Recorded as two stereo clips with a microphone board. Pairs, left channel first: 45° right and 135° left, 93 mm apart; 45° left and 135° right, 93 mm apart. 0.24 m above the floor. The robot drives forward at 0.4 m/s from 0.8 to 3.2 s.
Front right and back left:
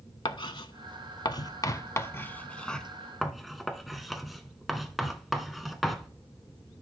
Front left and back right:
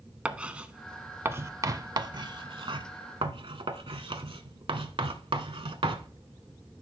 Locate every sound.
0.2 s writing: 60° right, 0.7 m; by 6.1 s 135° right, 0.9 m